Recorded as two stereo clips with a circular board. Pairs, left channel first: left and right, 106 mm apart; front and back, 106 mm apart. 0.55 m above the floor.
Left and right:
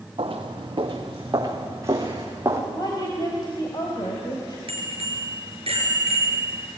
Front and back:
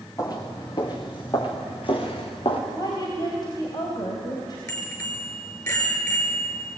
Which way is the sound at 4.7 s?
60° right.